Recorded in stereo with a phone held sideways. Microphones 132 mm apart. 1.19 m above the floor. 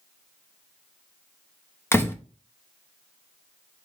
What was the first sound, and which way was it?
A door slam, 20° left (ahead or behind).